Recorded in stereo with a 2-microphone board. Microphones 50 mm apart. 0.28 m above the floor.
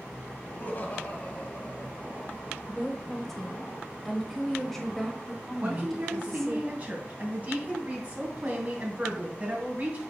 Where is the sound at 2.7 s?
5° left (ahead or behind), 0.9 m.